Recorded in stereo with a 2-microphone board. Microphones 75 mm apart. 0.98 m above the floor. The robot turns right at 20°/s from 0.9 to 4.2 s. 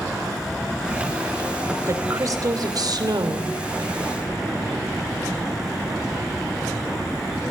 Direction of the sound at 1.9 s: 135° right.